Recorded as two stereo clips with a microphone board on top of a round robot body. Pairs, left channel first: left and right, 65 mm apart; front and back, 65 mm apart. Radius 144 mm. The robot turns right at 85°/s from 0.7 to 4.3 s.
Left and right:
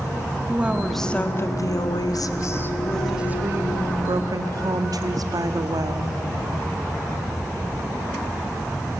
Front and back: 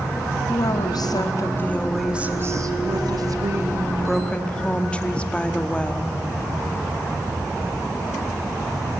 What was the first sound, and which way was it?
A woman speaking, 20° right.